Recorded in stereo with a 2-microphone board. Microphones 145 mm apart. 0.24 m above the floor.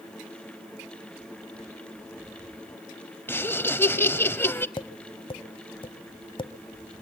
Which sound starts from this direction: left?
Tapping, at 4.8 s.